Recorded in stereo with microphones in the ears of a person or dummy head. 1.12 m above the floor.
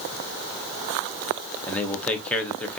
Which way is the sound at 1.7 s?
10° left (ahead or behind).